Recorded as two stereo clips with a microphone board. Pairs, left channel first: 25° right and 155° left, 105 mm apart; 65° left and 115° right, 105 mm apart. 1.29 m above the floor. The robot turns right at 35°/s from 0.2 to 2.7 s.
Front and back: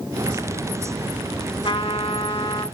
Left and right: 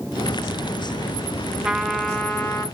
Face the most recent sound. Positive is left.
turn(degrees=5)